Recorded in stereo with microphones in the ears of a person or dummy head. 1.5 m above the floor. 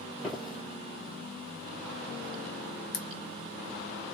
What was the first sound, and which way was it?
Footsteps, centre (ahead or behind).